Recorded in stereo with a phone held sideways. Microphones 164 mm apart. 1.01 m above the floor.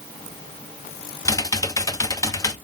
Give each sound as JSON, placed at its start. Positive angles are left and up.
{"t": 1.2, "sound": "typing on a keyboard", "side_deg": 20, "distance_m": 0.6}